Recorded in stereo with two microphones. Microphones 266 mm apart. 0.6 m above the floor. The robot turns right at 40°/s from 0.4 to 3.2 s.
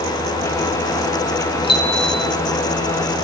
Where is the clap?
I don't hear a clap.